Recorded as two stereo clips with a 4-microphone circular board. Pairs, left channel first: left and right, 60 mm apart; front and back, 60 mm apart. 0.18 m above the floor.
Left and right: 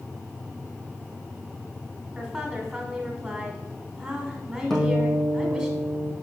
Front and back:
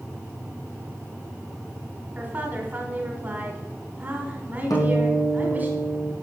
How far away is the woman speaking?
About 1.1 m.